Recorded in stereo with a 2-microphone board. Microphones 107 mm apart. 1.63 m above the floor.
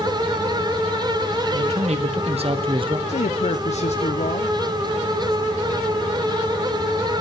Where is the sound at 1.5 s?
75° right (ahead or behind), 1.9 m; by 3.0 s 45° right (ahead or behind), 1.0 m.